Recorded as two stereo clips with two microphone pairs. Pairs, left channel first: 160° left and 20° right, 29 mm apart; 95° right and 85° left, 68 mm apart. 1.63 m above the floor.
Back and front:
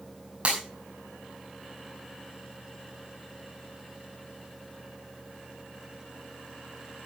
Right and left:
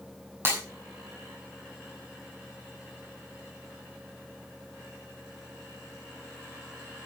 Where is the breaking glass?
30° left, 6 m.